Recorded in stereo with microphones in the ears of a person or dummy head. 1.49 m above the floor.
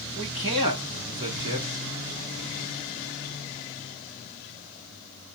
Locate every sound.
0.1 s a man speaking: 25° right (ahead or behind), 1.1 m